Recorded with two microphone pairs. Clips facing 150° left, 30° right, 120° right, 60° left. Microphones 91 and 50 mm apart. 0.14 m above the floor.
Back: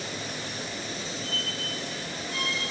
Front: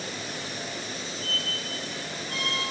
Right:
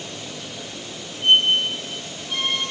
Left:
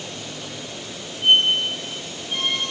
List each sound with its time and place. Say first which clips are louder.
1.2 s a squeak: even, even; 20° right, 2.5 m